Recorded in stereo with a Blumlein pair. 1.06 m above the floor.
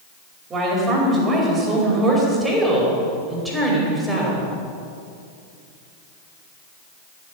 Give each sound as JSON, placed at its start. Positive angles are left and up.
{"t": 0.5, "sound": "a woman speaking", "azimuth_deg": -20, "distance_m": 5.5}